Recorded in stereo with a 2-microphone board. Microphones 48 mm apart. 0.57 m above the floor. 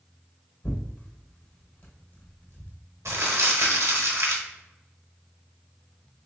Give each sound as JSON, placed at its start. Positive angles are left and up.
{"t": 0.6, "sound": "tearing paper", "side_deg": 35, "distance_m": 1.0}
{"t": 3.0, "sound": "crumpling", "side_deg": -80, "distance_m": 0.9}